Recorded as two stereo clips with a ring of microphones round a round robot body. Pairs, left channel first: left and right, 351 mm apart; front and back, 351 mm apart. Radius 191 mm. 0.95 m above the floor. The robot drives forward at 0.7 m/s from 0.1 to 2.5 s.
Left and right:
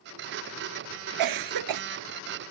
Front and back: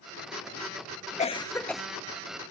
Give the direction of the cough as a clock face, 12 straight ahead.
2 o'clock.